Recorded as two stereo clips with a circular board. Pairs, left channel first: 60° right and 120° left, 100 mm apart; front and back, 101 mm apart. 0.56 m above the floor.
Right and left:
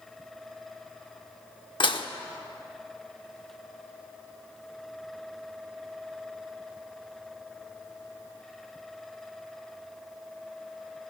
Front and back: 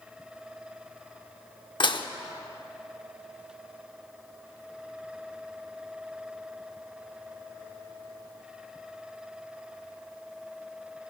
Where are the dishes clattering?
30° right, 0.7 m.